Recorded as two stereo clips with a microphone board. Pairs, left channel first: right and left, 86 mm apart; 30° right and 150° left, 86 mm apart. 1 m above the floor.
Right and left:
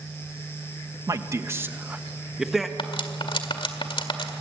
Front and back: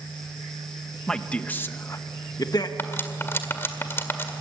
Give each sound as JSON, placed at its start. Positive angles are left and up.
{"t": 1.1, "sound": "a man speaking", "azimuth_deg": 50, "distance_m": 1.1}
{"t": 2.8, "sound": "cutlery clinking", "azimuth_deg": -95, "distance_m": 1.8}